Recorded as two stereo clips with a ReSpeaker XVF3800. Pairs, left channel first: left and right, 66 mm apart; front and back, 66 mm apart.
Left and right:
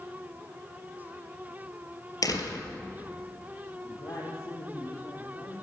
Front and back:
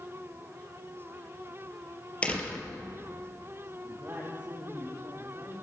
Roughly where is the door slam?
Left.